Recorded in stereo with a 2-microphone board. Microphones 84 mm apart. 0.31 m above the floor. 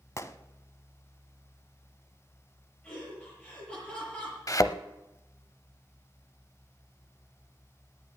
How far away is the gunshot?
About 0.7 m.